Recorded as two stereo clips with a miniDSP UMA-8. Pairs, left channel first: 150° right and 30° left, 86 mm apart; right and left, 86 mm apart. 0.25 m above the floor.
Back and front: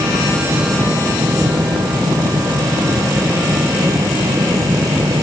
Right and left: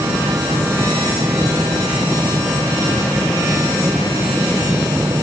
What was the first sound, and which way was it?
Only background noise.